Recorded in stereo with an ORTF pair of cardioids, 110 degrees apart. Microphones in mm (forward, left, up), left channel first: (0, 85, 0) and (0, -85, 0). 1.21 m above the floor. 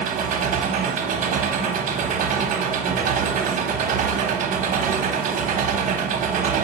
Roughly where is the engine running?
Ahead right.